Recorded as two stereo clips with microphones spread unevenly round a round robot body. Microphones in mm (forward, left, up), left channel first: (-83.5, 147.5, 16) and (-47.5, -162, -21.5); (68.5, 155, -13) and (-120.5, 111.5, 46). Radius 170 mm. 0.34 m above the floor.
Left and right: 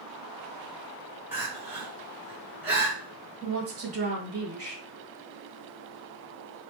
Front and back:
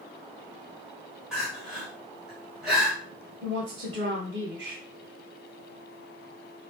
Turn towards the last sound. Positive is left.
turn(degrees=-105)